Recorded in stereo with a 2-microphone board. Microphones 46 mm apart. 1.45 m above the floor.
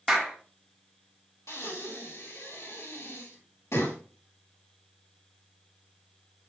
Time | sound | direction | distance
0.1 | a clap | 5° right (ahead or behind) | 2 m
1.5 | breathing | 85° left | 3.5 m